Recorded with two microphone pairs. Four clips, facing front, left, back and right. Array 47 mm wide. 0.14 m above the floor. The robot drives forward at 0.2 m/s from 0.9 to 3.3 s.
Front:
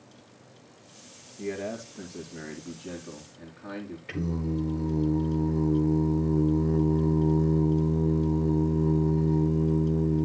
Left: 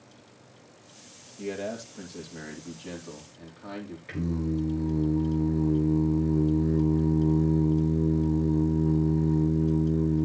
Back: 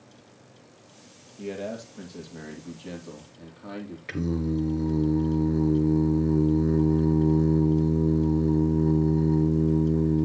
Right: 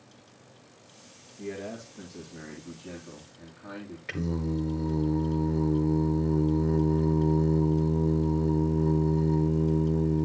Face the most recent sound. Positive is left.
turn(degrees=-145)